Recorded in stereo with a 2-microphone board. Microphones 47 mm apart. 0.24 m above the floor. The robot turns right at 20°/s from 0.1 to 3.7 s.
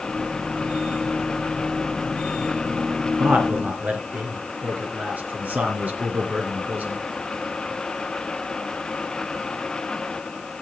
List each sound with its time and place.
3.2 s a man speaking: 45° right (ahead or behind), 3.5 m; by 7.0 s 35° right (ahead or behind), 3.5 m